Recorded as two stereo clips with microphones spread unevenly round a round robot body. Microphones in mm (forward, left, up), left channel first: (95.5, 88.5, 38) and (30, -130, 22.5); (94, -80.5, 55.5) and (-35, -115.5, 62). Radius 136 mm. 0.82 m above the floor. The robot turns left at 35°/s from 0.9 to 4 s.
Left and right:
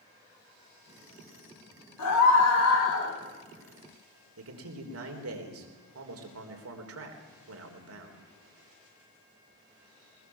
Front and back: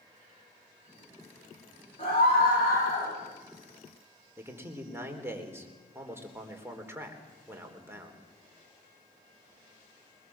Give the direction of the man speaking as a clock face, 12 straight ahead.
3 o'clock.